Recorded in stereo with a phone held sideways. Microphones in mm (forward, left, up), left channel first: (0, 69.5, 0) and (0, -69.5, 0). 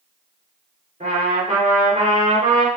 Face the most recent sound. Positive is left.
turn(degrees=-80)